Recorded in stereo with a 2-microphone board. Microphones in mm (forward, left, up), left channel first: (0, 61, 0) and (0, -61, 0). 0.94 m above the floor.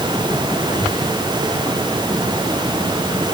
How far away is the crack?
No crack in this recording.